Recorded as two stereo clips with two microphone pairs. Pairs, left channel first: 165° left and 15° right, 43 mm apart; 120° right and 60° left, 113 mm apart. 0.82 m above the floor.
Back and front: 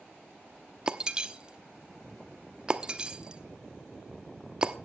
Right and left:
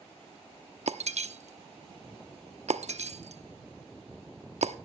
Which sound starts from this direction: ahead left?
Breaking glass, at 0.9 s.